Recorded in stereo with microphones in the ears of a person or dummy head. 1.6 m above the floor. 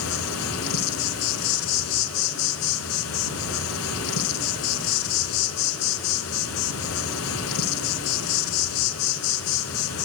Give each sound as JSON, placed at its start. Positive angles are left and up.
{"t": 0.0, "sound": "an insect", "side_deg": 80, "distance_m": 0.8}